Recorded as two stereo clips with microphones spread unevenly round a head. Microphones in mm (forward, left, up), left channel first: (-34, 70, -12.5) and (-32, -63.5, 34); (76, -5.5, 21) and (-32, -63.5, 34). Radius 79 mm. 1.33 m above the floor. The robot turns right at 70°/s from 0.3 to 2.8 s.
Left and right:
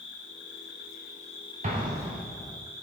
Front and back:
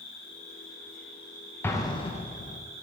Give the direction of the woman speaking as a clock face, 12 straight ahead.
I don't hear a woman speaking.